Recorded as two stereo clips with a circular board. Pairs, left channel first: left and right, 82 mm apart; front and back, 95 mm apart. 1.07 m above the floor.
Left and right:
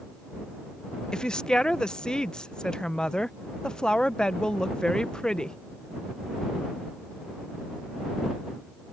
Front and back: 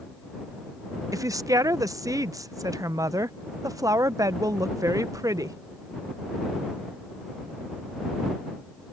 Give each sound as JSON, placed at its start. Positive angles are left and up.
{"t": 1.1, "sound": "a woman speaking", "azimuth_deg": 165}